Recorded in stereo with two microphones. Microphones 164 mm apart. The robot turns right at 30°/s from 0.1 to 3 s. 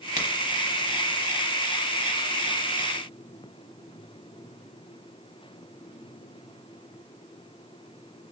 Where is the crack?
50° left (ahead or behind), 1.1 m; by 0.3 s 55° left (ahead or behind), 1.1 m.